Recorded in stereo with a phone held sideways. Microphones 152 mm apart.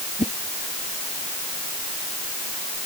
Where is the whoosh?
50° left (ahead or behind).